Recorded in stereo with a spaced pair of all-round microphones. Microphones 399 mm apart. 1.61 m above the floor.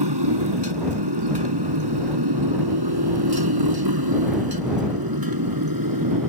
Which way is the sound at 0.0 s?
85° right.